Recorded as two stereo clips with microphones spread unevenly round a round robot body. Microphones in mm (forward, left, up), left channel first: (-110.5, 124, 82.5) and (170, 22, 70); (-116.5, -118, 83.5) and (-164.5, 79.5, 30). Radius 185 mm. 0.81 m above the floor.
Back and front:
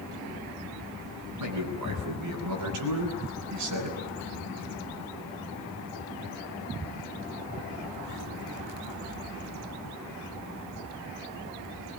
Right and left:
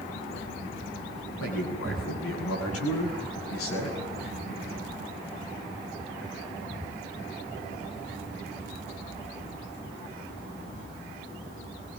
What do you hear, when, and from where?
1.4 s a man speaking: 50° right, 9.5 m